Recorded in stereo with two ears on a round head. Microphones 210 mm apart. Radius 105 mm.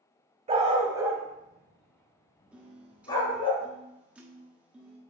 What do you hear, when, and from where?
0.5 s a dog barking: 30° right (ahead or behind), 1.1 m; by 3.5 s 20° left (ahead or behind), 2 m
2.5 s a piano: 5° right (ahead or behind), 1.2 m